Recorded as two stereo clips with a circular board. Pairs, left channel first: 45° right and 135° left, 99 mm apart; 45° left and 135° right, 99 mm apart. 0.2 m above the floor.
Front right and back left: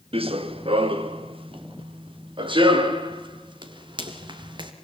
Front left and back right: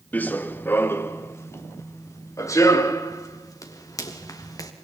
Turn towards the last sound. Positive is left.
turn(degrees=95)